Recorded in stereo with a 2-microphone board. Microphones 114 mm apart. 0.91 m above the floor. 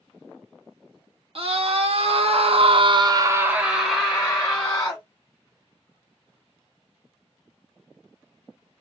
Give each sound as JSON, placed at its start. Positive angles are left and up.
{"t": 1.4, "sound": "a scream", "side_deg": -60, "distance_m": 1.2}